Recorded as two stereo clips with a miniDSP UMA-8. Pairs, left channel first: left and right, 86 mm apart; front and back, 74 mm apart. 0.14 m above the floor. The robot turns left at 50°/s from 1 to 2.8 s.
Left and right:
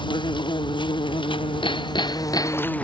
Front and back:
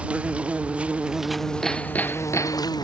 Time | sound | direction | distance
0.0 | an insect | 105° left | ?
1.6 | hammering | 85° left | ?